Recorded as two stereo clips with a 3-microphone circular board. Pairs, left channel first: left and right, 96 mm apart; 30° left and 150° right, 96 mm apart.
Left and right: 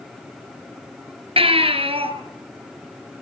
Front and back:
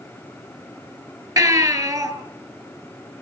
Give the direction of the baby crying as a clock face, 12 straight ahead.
3 o'clock.